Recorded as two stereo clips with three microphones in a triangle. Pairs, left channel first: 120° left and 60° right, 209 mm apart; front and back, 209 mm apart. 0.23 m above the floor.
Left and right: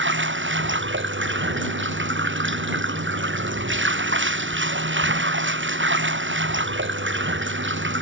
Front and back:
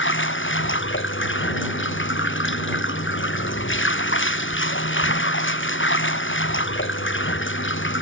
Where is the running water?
30° right.